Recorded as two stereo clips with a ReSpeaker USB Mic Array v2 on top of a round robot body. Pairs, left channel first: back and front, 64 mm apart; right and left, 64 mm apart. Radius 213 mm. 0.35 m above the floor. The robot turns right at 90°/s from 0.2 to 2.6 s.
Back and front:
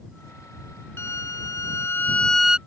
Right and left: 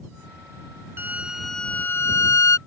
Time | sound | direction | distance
1.0 | a violin | 140° left | ?